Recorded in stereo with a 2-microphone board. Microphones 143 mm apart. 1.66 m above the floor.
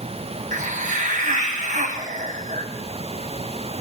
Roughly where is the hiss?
Right.